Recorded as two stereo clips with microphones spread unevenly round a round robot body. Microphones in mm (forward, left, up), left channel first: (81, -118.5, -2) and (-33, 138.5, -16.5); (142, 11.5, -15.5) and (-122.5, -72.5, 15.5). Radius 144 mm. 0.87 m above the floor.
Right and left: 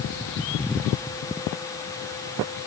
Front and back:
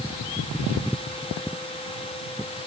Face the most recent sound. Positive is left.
No sound to turn to.